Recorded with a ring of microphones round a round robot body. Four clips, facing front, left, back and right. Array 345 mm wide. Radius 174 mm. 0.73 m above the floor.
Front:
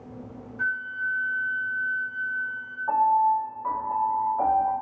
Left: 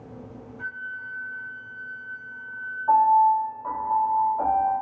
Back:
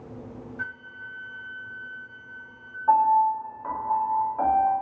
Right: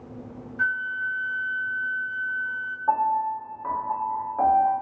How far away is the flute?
About 0.5 m.